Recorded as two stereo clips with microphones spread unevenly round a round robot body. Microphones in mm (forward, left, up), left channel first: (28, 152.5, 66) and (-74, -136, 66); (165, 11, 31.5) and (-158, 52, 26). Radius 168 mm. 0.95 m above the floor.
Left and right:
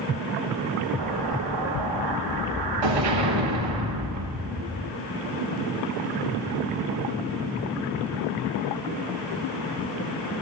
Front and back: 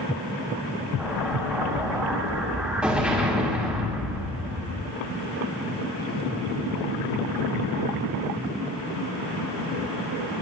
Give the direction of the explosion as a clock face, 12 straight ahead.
3 o'clock.